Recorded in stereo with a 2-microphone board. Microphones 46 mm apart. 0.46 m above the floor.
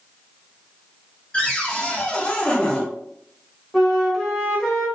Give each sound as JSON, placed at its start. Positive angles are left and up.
{"t": 1.3, "sound": "a cupboard door", "side_deg": 20, "distance_m": 0.8}
{"t": 3.7, "sound": "a flute", "side_deg": 5, "distance_m": 1.0}